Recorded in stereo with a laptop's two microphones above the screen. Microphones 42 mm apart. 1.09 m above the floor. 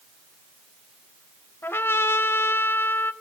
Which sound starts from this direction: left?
A trumpet, at 1.6 s.